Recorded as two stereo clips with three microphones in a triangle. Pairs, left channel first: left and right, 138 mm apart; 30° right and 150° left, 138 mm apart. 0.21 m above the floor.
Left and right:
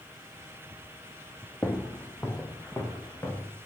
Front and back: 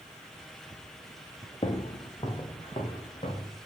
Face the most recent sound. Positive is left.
turn(degrees=15)